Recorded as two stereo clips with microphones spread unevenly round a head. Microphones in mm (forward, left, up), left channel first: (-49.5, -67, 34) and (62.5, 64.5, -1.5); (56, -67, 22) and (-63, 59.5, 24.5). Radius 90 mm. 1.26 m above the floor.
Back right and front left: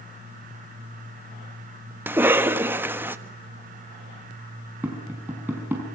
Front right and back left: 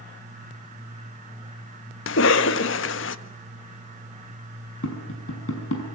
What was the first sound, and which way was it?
A cough, 30° right.